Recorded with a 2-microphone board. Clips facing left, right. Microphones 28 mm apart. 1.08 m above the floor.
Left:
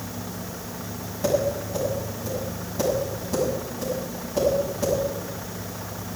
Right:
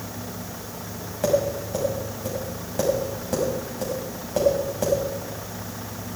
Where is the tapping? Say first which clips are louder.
Right 1 dB; 85° right, 6.5 m.